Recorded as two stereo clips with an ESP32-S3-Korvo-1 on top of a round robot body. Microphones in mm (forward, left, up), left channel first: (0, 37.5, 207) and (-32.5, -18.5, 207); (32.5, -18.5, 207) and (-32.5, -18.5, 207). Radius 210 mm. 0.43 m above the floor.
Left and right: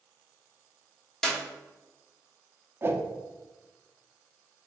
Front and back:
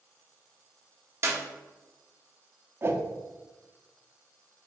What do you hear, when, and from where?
1.2 s a clap: 140° left, 1.1 m
2.8 s a whoosh: 155° right, 0.8 m